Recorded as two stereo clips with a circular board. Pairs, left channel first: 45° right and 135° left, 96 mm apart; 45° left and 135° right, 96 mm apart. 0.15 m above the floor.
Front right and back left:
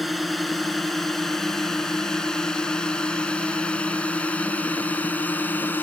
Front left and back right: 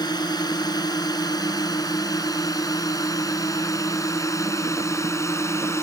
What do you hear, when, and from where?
0.0 s a drone: 45° left; by 5.8 s 10° left